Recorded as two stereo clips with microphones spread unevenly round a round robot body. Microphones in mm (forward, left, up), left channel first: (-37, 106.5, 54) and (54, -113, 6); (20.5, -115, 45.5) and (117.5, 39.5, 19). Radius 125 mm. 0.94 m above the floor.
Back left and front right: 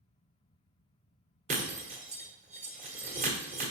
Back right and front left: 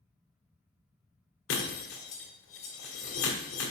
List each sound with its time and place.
1.5 s breaking glass: 135° right, 1.6 m